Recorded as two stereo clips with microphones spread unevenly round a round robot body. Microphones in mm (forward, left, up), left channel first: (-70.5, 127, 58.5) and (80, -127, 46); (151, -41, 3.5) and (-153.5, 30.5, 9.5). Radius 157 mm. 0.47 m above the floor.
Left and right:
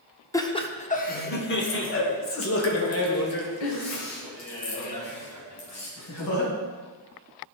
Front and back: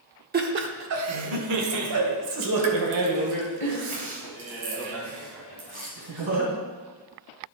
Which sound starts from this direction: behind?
Laughter, at 0.3 s.